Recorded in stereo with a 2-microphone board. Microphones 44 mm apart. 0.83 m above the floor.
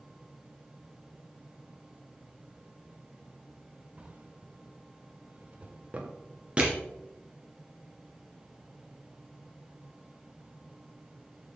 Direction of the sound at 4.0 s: 30° right (ahead or behind).